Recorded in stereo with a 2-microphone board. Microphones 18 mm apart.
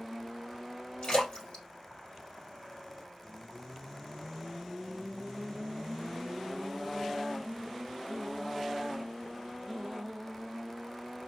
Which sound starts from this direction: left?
A splash, at 1.0 s.